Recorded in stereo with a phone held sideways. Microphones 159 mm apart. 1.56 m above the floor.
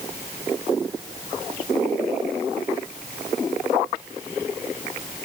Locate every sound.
Only background noise.